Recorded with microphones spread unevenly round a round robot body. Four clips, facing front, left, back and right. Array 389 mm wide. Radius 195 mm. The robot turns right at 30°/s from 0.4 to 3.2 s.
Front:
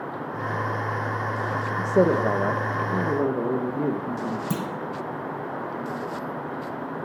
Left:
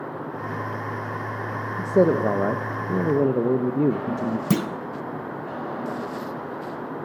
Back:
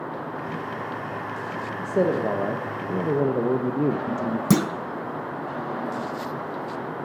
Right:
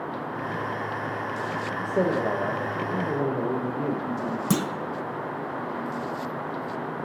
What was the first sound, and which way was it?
A man speaking, 65° left.